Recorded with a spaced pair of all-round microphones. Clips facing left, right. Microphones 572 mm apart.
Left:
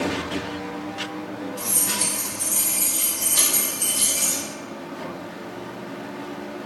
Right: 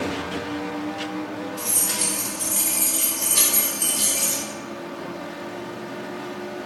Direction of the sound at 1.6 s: 50° left (ahead or behind).